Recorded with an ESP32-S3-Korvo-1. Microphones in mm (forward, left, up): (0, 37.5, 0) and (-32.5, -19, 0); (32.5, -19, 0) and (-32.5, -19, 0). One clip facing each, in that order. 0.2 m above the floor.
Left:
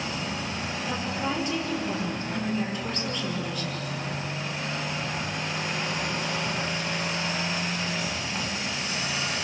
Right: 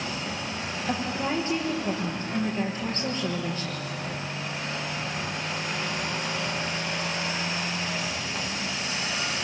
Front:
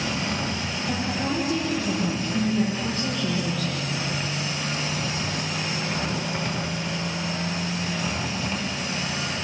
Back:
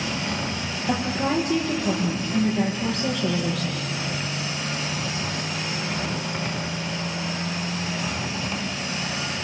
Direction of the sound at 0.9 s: 175° right.